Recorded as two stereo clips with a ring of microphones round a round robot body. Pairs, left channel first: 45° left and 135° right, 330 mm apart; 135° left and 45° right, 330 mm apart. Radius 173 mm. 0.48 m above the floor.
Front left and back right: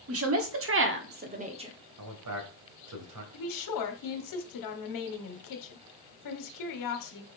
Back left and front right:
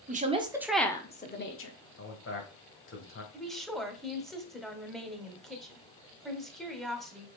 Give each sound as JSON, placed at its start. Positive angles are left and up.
{"t": 0.1, "sound": "a woman speaking", "azimuth_deg": -105, "distance_m": 1.5}
{"t": 2.0, "sound": "a man speaking", "azimuth_deg": -170, "distance_m": 2.5}
{"t": 3.3, "sound": "a woman speaking", "azimuth_deg": 45, "distance_m": 1.6}